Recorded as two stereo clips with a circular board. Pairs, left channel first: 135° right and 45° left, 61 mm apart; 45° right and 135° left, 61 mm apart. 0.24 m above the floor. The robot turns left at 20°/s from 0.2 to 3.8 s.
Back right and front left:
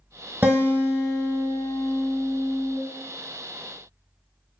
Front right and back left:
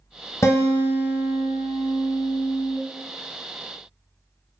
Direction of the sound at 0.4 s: 5° right.